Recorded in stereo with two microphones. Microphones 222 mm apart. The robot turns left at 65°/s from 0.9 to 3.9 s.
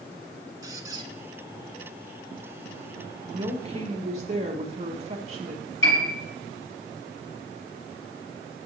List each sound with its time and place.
0.6 s a squeak: 15° right (ahead or behind), 0.6 m; by 1.1 s 30° right (ahead or behind), 0.6 m
3.3 s a woman speaking: 40° right, 1.3 m; by 5.6 s 80° right, 1.3 m
5.8 s a piano: 70° left (ahead or behind), 4 m